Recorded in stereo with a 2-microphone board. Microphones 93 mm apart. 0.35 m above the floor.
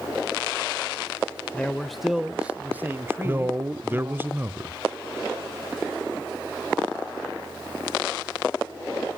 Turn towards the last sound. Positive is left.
turn(degrees=-25)  # may be behind; listen again after turning